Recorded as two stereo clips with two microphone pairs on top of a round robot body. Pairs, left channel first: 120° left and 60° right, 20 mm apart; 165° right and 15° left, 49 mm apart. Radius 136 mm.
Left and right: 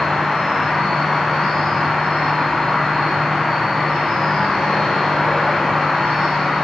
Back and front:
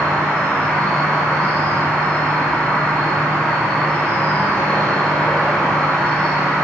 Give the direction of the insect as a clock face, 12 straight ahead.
7 o'clock.